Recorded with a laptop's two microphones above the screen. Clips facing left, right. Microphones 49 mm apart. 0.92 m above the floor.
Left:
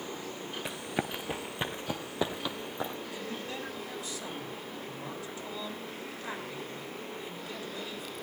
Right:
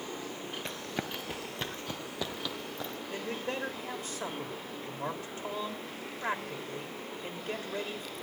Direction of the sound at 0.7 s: 10° left (ahead or behind).